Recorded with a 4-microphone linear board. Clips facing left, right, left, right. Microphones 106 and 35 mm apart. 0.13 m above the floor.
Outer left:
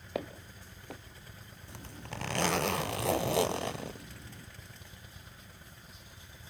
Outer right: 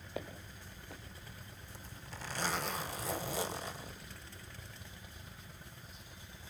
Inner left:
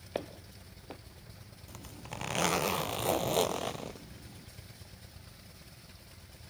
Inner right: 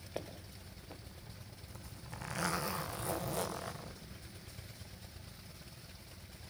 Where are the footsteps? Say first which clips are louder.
Outer left 6 dB, inner left 6 dB; 70° left (ahead or behind), 2 m.